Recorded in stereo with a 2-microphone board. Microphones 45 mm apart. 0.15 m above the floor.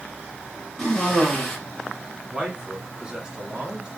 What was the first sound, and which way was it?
A cough, 10° left (ahead or behind).